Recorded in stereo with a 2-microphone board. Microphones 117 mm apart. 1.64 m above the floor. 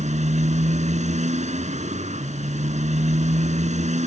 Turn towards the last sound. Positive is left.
turn(degrees=-80)